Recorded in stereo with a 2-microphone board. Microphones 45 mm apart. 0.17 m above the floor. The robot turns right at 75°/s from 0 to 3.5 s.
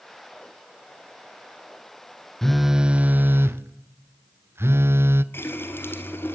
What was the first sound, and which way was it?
A phone buzzing, 170° left.